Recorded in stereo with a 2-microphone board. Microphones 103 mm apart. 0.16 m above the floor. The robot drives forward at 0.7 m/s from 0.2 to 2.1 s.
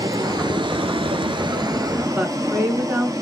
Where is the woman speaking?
15° right (ahead or behind), 1.8 m.